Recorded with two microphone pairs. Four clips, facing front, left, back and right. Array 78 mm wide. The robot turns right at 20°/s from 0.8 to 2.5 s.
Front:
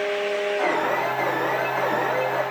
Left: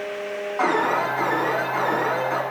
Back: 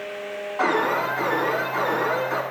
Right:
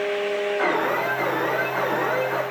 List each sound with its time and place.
0.6 s an alarm: 105° left, 7.5 m; by 2.4 s 140° left, 7.5 m